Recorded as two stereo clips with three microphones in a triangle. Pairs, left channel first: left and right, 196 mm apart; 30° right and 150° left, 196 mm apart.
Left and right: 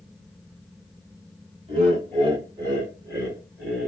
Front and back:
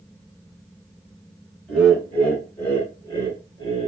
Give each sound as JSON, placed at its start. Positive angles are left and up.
{"t": 1.7, "sound": "laughter", "azimuth_deg": -110, "distance_m": 2.0}